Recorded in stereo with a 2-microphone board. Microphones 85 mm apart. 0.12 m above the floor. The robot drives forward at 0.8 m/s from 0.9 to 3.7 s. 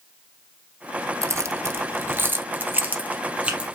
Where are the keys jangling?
35° right (ahead or behind), 0.9 m; by 3.7 s 15° right (ahead or behind), 2 m.